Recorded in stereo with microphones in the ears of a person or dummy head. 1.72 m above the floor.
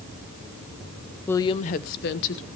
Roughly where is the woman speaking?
Centre.